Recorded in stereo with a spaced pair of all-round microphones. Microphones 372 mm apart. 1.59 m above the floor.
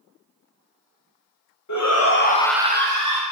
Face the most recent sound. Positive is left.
turn(degrees=-60)  # may be behind; listen again after turning